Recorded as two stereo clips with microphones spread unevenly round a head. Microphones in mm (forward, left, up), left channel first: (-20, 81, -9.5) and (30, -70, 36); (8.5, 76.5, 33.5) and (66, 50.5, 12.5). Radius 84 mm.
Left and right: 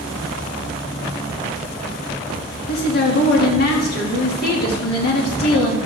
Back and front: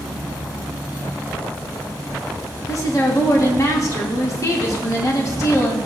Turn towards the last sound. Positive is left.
turn(degrees=115)